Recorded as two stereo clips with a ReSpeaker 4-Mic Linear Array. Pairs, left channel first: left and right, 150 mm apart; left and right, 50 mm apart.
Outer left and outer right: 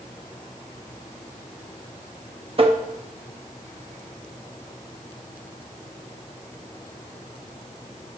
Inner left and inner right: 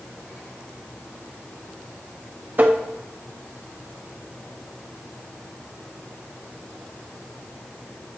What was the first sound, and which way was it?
Tapping, 40° right (ahead or behind).